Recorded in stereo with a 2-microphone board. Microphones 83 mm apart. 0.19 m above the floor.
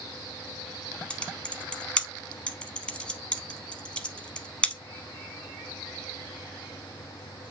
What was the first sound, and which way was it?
Typing on a keyboard, 10° left (ahead or behind).